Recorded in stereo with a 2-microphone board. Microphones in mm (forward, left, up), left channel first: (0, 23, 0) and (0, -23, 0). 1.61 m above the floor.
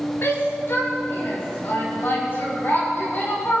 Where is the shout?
55° left (ahead or behind), 2.5 m; by 3.6 s 40° left (ahead or behind), 6 m.